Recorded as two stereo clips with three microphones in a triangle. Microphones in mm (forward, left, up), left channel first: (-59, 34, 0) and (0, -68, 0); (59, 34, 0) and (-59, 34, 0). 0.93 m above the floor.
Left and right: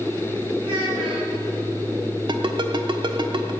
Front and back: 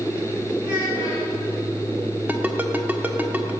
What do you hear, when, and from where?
0.6 s a child speaking: 100° right, 7 m
2.3 s a ringtone: 105° right, 1.3 m